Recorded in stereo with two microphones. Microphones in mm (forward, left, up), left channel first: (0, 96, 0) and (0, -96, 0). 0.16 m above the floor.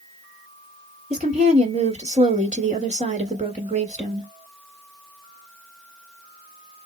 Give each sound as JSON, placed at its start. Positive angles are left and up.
{"t": 1.1, "sound": "a woman speaking", "side_deg": -35, "distance_m": 1.3}